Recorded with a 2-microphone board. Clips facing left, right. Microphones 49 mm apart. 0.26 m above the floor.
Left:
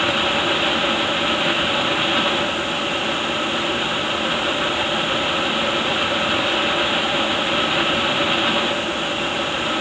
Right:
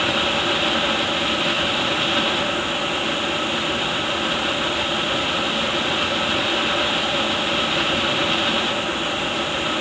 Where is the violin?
No violin in this recording.